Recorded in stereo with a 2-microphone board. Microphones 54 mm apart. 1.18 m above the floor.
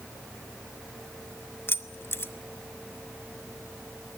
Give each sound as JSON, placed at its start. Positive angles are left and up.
{"t": 1.7, "sound": "keys jangling", "side_deg": 45, "distance_m": 1.2}